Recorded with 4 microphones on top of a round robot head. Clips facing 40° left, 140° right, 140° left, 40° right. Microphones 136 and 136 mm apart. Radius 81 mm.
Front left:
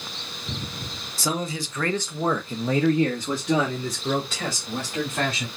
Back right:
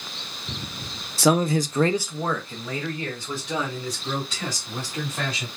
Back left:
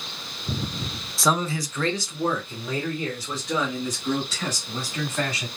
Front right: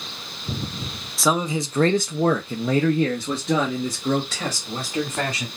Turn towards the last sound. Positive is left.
turn(degrees=0)